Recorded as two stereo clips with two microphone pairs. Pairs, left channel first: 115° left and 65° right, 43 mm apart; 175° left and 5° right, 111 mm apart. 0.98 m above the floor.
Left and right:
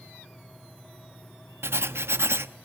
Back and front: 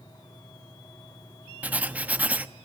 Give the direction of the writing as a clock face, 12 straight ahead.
3 o'clock.